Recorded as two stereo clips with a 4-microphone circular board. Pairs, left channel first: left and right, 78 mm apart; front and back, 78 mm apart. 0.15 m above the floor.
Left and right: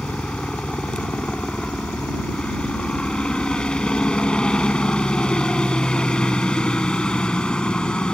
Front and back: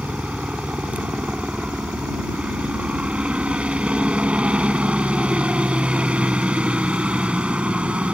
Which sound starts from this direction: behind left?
A helicopter, at 0.0 s.